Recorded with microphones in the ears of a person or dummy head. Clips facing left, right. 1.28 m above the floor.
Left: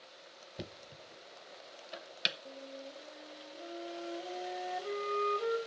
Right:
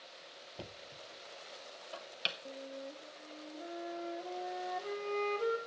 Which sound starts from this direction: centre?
A flute, at 2.5 s.